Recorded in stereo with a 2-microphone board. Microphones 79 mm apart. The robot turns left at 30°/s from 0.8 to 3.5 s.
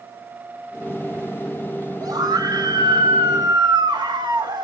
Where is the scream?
60° right, 0.9 m; by 4.6 s 105° right, 0.9 m.